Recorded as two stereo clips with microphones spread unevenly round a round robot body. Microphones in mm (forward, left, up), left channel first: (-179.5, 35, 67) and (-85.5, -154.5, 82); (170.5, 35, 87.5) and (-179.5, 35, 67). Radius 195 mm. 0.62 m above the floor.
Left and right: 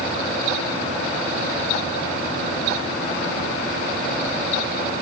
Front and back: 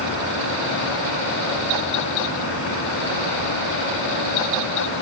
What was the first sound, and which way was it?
Only background noise.